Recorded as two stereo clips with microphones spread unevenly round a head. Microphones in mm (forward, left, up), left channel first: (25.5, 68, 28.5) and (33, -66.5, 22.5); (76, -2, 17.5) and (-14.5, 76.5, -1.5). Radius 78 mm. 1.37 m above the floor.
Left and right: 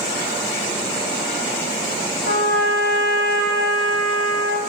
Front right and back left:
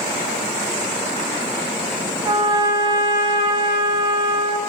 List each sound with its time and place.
2.2 s a trumpet: 85° left, 7.5 m